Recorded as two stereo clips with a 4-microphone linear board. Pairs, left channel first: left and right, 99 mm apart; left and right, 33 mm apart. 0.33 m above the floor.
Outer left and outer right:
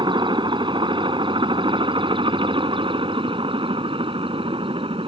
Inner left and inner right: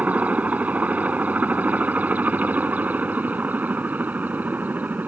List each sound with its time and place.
0.0 s a helicopter: 50° right (ahead or behind); by 5.1 s 65° right (ahead or behind)